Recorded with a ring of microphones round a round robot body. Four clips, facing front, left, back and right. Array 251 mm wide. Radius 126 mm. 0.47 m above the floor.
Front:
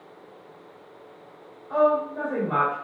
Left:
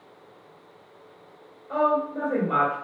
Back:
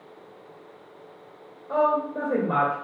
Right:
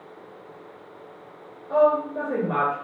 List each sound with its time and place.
1.7 s a woman speaking: 155° right, 2 m